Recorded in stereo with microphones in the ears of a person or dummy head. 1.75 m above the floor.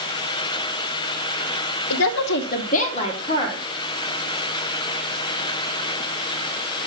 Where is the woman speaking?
70° left (ahead or behind), 0.8 m; by 3.6 s 25° left (ahead or behind), 2 m.